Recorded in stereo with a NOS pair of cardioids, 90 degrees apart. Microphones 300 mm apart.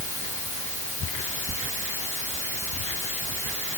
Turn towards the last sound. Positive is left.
No sound to turn to.